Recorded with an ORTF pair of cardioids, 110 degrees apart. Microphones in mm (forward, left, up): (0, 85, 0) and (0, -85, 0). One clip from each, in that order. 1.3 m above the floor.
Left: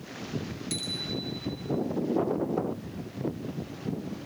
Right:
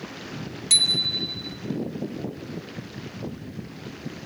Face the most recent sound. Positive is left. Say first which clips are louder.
# right 14 dB
turn(degrees=-70)